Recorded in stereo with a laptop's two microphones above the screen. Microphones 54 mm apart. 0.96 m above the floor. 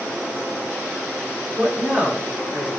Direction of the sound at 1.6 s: 25° right (ahead or behind).